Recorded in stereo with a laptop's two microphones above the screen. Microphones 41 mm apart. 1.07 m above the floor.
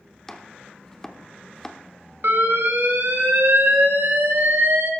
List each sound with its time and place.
0.3 s chopping: 10° left (ahead or behind), 0.8 m
2.2 s an alarm: 75° right (ahead or behind), 2.5 m